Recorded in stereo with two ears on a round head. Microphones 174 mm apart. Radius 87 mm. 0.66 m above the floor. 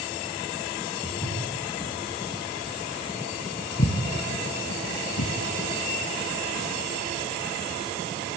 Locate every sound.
1.0 s footsteps: 20° left (ahead or behind), 5.5 m; by 5.3 s 70° left (ahead or behind), 1.8 m